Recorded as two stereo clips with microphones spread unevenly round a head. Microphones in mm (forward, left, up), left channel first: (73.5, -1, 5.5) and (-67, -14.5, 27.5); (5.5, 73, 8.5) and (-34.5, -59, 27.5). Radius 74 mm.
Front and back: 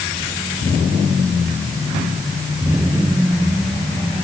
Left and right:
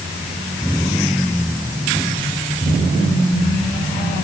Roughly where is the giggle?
No giggle in this recording.